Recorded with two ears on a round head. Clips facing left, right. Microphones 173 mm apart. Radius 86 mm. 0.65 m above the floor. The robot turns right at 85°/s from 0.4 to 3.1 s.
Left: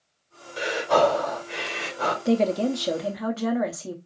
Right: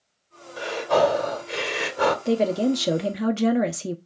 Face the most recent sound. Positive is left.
turn(degrees=-115)